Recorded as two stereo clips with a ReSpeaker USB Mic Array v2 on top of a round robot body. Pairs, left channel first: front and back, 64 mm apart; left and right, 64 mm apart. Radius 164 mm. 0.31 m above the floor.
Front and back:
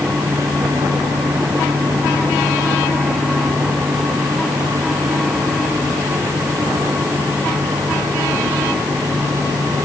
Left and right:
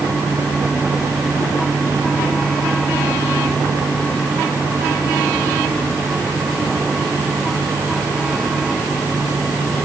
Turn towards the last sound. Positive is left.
No sound to turn to.